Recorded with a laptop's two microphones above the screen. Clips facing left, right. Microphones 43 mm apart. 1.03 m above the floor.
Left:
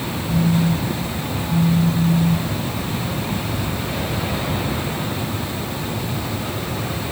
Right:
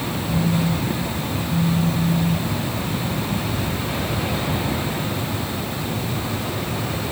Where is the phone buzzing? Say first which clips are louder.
Left 3 dB; 65° left (ahead or behind).